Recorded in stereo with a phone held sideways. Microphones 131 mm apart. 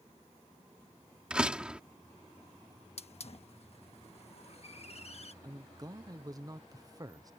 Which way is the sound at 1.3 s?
10° right (ahead or behind).